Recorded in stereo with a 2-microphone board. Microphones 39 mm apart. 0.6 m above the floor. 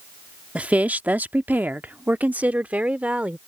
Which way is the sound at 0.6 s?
35° right (ahead or behind).